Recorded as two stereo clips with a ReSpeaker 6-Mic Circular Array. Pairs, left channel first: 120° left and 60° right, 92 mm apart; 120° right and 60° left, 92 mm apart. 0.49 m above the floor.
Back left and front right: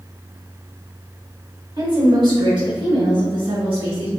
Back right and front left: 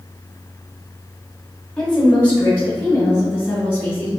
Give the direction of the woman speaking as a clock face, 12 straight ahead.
1 o'clock.